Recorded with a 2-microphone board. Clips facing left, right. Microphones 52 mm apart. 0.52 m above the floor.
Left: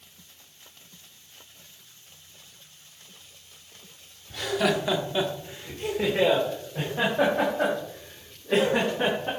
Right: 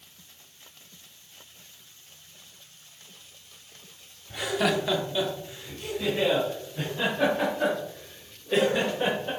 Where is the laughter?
20° right (ahead or behind), 1.2 m; by 9.3 s 65° left (ahead or behind), 5 m.